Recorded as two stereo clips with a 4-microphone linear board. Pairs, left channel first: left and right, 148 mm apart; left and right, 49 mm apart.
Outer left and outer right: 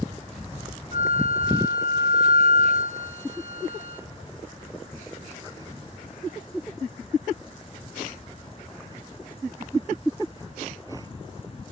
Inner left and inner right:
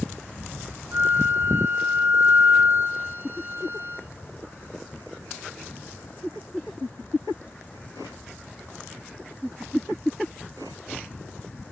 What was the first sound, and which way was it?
A flute, 55° right (ahead or behind).